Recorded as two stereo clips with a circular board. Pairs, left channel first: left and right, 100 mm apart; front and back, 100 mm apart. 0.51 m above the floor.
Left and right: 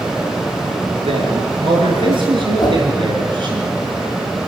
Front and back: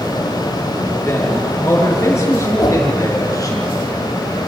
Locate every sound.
1.0 s a man speaking: 65° right, 7.5 m; by 3.6 s 55° right, 6.5 m
2.6 s a whoosh: 45° left, 4.5 m